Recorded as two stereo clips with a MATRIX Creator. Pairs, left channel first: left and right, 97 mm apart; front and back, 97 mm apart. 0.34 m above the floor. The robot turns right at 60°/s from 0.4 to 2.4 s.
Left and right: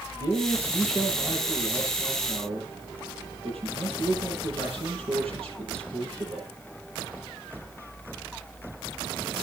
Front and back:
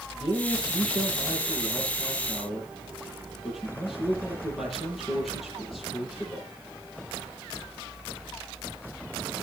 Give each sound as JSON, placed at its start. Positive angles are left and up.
{"t": 0.1, "sound": "a man speaking", "azimuth_deg": 145, "distance_m": 9.0}